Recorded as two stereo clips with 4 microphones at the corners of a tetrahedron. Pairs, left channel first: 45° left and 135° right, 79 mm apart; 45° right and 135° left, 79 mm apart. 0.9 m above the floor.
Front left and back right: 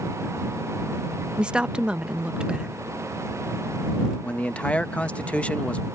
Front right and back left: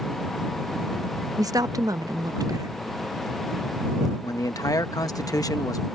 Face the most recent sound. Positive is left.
turn(degrees=-25)